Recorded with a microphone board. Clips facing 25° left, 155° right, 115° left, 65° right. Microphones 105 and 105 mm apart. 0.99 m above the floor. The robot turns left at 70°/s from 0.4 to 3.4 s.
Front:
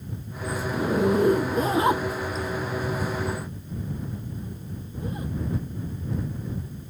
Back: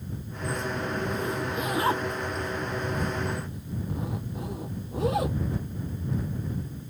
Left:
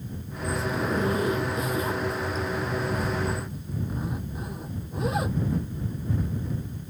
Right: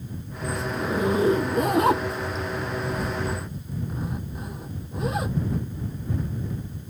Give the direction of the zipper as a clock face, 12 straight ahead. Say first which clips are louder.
Front 12 dB, right 3 dB; 11 o'clock.